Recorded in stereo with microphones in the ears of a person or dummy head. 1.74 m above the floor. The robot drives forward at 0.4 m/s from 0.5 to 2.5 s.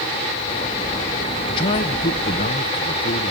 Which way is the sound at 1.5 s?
25° left (ahead or behind).